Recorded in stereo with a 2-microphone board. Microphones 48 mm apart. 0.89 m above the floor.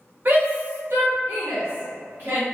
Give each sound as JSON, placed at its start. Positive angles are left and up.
{"t": 0.2, "sound": "a shout", "side_deg": -45, "distance_m": 0.8}